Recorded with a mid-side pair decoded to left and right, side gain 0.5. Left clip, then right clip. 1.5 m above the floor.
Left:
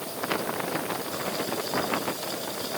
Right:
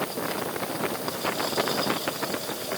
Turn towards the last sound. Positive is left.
No sound to turn to.